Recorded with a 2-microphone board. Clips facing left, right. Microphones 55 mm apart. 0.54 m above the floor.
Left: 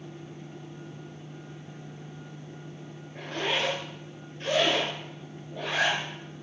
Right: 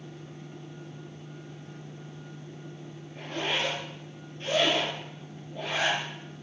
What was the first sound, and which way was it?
A zipper, 65° left (ahead or behind).